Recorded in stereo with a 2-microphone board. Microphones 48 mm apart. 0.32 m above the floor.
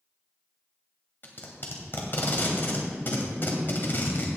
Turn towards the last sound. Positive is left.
turn(degrees=45)  # may be behind; listen again after turning